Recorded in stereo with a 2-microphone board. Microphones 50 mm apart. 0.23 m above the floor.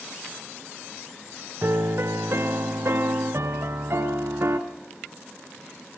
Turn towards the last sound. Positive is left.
turn(degrees=-55)  # may be behind; listen again after turning